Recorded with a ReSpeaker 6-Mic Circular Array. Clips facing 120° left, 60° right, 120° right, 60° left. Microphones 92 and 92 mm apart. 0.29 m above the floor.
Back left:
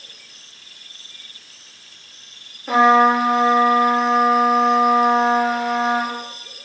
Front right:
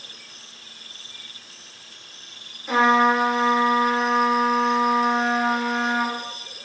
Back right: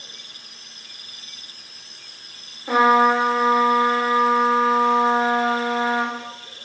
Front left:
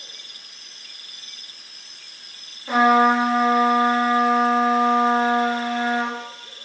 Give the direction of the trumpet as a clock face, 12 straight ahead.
6 o'clock.